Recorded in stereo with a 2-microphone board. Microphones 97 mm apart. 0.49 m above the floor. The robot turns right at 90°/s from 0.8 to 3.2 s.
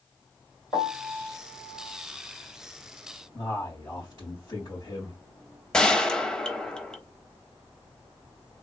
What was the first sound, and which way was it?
A piano, 150° left.